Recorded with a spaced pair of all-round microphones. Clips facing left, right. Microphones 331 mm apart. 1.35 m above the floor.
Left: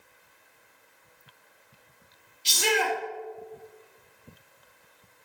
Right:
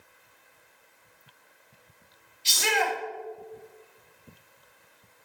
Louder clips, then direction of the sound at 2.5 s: Left 2 dB; 45° left (ahead or behind).